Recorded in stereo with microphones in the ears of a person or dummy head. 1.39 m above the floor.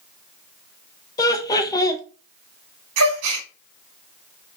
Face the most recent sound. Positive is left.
turn(degrees=-75)  # may be behind; listen again after turning